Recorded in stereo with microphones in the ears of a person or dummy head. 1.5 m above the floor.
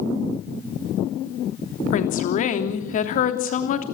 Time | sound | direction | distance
1.9 | a woman speaking | 50° left (ahead or behind) | 3 m